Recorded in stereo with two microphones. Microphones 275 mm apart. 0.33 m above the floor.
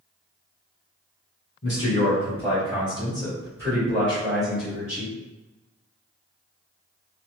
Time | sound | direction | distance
1.6 | a man speaking | 25° left (ahead or behind) | 1.8 m